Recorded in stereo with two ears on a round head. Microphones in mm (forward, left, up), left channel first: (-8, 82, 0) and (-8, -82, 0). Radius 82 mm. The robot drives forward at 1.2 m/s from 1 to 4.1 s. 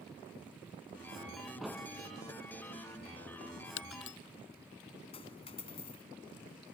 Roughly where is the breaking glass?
Left.